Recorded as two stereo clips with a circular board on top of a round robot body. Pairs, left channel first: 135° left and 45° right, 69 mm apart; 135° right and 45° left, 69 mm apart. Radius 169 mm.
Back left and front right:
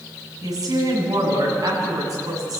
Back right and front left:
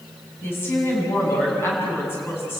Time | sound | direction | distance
0.4 | a woman speaking | 75° right | 7.5 m